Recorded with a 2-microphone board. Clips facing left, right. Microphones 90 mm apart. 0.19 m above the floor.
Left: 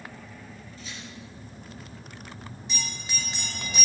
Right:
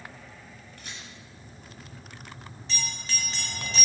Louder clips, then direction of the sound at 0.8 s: Left 2 dB; 65° right (ahead or behind).